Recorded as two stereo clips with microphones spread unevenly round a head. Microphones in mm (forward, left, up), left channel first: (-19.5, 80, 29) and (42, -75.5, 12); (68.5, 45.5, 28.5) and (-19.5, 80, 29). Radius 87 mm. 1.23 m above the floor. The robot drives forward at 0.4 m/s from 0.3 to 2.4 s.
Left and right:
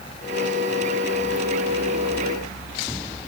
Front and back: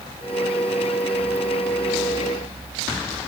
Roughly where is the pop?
I don't hear a pop.